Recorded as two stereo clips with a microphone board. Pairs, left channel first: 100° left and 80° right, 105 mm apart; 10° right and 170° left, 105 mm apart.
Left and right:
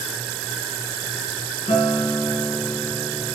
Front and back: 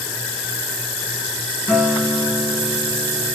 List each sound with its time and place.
1.7 s a guitar: 75° left, 4.5 m